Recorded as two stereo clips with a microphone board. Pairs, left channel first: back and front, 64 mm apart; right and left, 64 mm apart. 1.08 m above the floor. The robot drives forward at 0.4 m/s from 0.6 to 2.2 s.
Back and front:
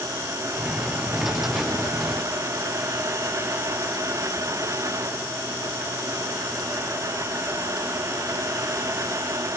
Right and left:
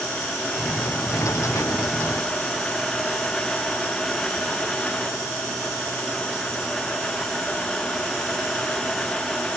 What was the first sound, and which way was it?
Only background noise.